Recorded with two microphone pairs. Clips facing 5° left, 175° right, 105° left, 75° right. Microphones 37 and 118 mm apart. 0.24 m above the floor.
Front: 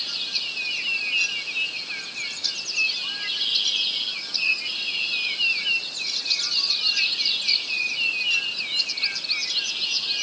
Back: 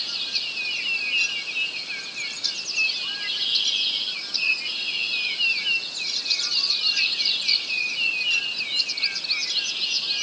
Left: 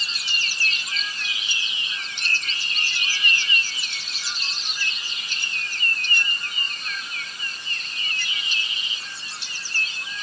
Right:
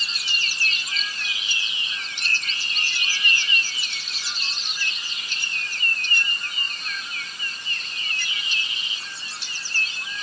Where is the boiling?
I don't hear boiling.